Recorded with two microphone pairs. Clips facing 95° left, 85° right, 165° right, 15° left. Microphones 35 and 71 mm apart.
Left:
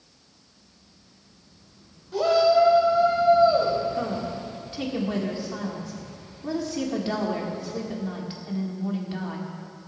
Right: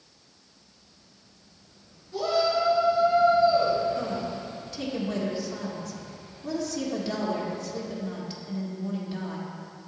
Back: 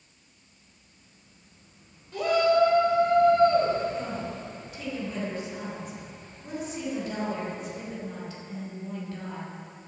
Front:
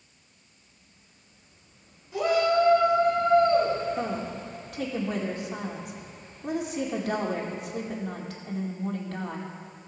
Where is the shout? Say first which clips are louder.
Left 6 dB, back 1 dB; 95° left, 2.5 m.